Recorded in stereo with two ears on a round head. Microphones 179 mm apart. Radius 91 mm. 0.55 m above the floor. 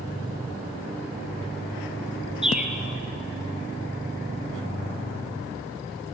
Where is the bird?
5° right (ahead or behind), 1.4 m.